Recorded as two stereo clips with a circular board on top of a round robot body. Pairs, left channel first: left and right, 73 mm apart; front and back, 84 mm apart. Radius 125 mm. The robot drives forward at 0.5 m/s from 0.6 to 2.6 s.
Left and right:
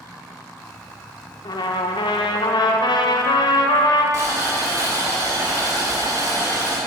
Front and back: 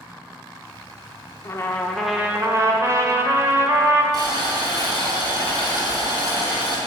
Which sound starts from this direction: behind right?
Boiling, at 4.1 s.